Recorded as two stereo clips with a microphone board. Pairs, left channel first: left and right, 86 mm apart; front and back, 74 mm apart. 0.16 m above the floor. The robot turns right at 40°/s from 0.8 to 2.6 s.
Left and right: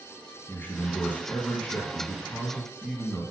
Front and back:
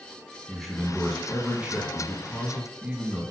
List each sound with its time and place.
0.5 s a man speaking: 95° left, 1.4 m; by 3.2 s 165° left, 1.4 m